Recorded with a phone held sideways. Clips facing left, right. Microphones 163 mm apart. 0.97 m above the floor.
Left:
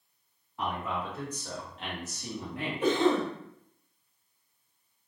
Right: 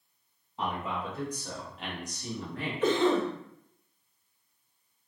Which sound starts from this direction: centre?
A cough, at 2.8 s.